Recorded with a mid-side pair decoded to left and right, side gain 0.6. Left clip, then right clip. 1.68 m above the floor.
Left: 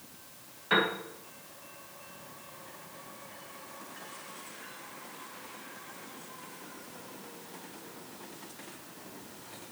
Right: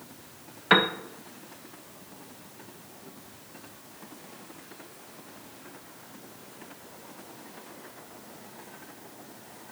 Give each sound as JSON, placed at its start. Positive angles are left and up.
{"t": 0.7, "sound": "a piano", "azimuth_deg": -55, "distance_m": 1.5}